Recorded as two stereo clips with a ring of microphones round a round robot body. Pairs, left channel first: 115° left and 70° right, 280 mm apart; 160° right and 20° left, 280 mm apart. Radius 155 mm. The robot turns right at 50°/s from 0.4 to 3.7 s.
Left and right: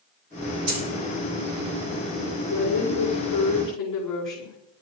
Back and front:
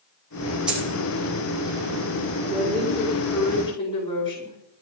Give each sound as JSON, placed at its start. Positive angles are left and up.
{"t": 0.7, "sound": "a dropped coin", "azimuth_deg": -65, "distance_m": 6.5}
{"t": 2.5, "sound": "a woman speaking", "azimuth_deg": 65, "distance_m": 5.0}